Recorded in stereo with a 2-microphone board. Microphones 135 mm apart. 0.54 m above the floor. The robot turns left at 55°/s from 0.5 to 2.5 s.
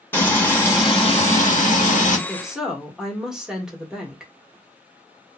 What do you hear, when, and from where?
0.1 s frying: 165° left, 1.0 m; by 2.2 s 75° left, 1.0 m
2.3 s a woman speaking: 5° left (ahead or behind), 1.2 m; by 4.3 s 5° right (ahead or behind), 1.2 m